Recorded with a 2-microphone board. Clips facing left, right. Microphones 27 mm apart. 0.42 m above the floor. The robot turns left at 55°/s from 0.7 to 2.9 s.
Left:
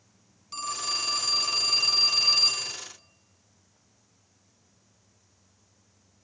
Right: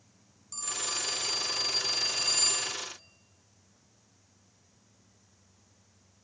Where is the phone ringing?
135° left, 2 m; by 2.8 s 20° left, 2 m.